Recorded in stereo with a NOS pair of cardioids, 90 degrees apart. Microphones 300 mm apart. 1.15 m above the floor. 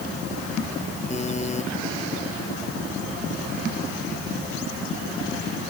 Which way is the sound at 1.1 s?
20° left.